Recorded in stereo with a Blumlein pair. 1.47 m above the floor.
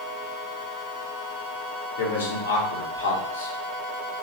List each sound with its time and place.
2.0 s a man speaking: 60° left, 1.2 m